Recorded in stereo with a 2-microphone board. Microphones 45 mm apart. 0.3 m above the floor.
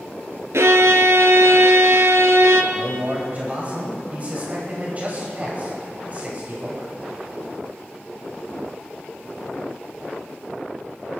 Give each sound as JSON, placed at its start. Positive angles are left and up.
{"t": 0.5, "sound": "a violin", "side_deg": -85, "distance_m": 0.9}
{"t": 2.7, "sound": "a man speaking", "side_deg": -35, "distance_m": 1.9}